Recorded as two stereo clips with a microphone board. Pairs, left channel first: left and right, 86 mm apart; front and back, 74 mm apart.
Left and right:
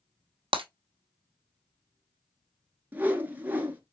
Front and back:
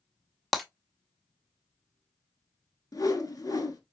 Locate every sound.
0.5 s breaking glass: 90° right, 0.7 m
2.9 s a whoosh: 20° right, 1.1 m